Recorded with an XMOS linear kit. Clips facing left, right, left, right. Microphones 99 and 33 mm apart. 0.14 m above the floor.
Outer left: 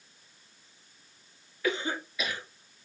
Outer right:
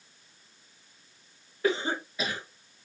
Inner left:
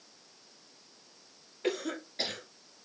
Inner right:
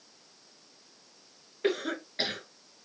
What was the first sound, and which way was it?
A cough, 35° right (ahead or behind).